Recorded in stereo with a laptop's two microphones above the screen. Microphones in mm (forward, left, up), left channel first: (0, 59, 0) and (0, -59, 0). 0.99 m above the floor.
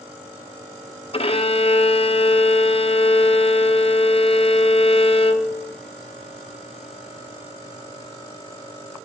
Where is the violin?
50° left (ahead or behind), 0.6 m.